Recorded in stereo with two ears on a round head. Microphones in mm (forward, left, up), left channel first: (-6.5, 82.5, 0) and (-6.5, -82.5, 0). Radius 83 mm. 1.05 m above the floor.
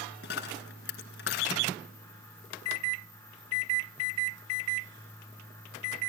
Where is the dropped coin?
65° left (ahead or behind), 2 m.